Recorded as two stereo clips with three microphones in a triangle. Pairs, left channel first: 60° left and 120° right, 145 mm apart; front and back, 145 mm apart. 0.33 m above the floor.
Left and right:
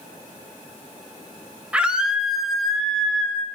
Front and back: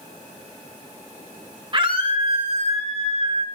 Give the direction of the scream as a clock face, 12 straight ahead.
7 o'clock.